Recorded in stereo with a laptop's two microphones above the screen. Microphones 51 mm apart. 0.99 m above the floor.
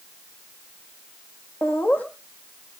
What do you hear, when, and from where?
1.6 s laughter: 40° left (ahead or behind), 1.8 m